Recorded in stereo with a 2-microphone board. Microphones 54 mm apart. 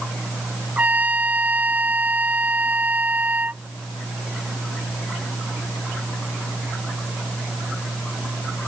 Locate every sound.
0.8 s a trumpet: 30° right (ahead or behind)